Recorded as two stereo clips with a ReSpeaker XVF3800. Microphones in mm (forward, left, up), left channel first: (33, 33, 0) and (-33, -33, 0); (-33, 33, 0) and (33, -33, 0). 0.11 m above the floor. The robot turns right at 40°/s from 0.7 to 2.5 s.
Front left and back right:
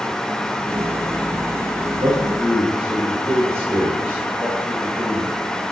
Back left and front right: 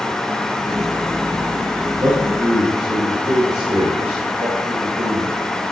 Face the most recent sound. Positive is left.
turn(degrees=-70)